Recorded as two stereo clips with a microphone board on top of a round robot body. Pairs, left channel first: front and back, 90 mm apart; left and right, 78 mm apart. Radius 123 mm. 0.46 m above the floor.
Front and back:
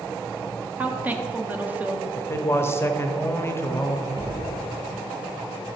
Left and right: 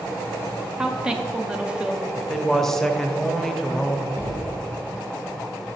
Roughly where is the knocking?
Behind left.